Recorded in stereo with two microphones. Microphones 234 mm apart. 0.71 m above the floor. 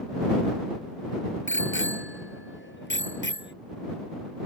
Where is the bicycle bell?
55° left (ahead or behind); by 3.5 s 50° left (ahead or behind).